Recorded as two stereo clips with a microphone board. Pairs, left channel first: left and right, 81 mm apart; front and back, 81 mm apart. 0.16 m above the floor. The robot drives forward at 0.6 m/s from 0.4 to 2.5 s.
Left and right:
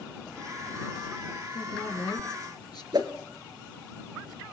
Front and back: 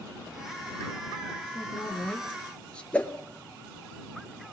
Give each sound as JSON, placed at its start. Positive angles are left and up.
{"t": 1.5, "sound": "a woman speaking", "azimuth_deg": 65, "distance_m": 3.0}
{"t": 2.9, "sound": "a whoosh", "azimuth_deg": -75, "distance_m": 2.5}